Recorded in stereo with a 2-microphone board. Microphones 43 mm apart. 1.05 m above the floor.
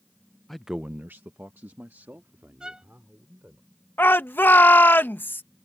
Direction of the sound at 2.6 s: 15° right (ahead or behind).